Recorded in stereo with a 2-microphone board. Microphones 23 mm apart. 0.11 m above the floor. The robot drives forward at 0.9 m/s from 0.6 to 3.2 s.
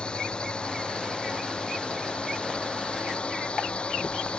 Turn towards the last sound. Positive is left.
turn(degrees=50)  # may be behind; listen again after turning